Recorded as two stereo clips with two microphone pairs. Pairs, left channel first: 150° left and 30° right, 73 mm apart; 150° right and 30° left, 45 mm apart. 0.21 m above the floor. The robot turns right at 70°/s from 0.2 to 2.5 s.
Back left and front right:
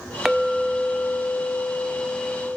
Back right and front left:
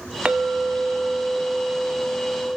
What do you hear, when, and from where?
0.2 s a clink: 35° left, 0.6 m; by 2.6 s 170° right, 0.6 m